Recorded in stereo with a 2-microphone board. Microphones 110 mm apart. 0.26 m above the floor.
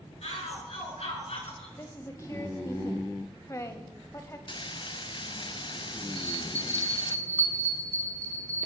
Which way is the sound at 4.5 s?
45° left (ahead or behind).